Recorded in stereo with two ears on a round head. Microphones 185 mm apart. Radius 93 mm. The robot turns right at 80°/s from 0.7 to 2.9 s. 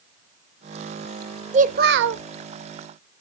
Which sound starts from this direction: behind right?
A child speaking, at 1.5 s.